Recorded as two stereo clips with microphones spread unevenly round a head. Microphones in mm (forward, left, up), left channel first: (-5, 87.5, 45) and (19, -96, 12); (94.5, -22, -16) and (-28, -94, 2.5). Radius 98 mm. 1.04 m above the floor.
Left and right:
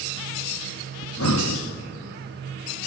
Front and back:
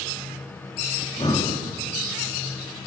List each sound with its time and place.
1.0 s breathing: 100° left, 1.5 m